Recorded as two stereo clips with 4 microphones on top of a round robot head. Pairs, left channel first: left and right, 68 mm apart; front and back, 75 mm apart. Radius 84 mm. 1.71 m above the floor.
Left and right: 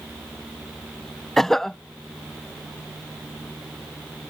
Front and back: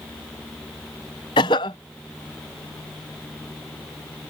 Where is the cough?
5° left.